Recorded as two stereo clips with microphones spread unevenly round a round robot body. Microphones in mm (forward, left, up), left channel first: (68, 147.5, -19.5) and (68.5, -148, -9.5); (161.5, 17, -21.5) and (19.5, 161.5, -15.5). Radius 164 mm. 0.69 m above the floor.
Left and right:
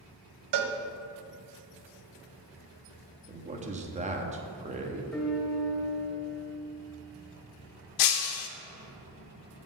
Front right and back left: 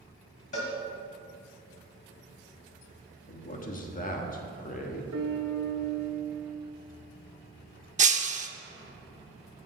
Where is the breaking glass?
80° left, 0.9 m.